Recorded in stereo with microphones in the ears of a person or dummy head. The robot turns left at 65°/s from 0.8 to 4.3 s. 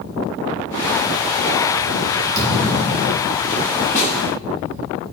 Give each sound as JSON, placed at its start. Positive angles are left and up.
{"t": 2.4, "sound": "a thud", "azimuth_deg": -90, "distance_m": 3.0}
{"t": 4.0, "sound": "a snare drum", "side_deg": 40, "distance_m": 1.6}